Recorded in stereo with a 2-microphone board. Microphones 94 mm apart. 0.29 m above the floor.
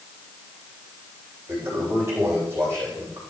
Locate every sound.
1.5 s a toilet flushing: 25° right (ahead or behind), 9 m